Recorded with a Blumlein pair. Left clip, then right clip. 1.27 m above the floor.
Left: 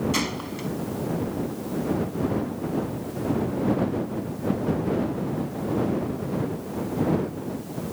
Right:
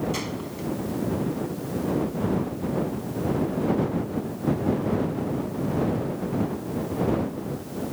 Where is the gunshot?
20° left.